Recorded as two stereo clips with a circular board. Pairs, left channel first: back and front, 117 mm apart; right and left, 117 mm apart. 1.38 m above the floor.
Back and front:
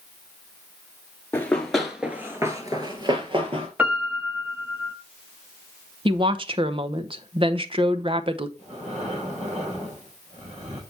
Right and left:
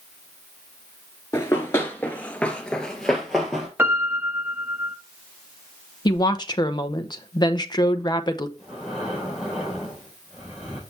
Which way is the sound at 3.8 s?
50° left.